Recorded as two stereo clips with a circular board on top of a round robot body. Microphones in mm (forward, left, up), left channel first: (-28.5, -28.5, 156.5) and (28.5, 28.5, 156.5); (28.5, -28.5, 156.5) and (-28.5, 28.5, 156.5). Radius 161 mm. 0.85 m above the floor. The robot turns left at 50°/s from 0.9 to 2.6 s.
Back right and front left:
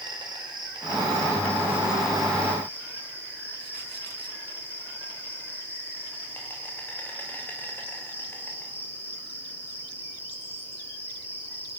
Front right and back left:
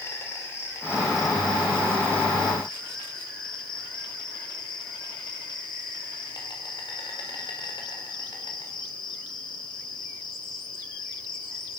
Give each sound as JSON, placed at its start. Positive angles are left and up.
{"t": 0.0, "sound": "an insect", "azimuth_deg": 15, "distance_m": 7.0}